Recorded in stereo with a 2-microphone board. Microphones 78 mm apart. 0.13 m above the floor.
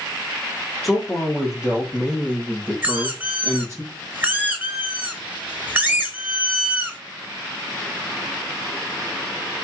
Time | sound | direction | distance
0.8 | a man speaking | centre (ahead or behind) | 2 m
2.8 | a squeak | 20° right (ahead or behind) | 0.8 m